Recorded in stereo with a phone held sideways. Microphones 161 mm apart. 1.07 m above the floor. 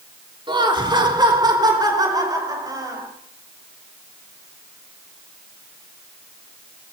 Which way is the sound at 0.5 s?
30° right (ahead or behind).